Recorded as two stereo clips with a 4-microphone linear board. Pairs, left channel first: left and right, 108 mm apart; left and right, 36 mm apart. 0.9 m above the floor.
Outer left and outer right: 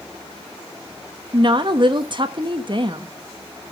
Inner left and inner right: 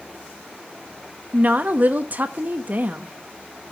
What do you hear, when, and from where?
1.3 s a woman speaking: 50° right (ahead or behind), 1.0 m